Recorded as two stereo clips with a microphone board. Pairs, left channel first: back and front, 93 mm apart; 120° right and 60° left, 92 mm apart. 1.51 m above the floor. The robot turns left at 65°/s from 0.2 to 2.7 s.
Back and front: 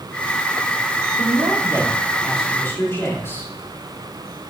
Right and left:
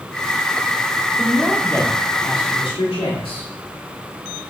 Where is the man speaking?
15° right, 3 m; by 3.5 s 115° right, 3 m.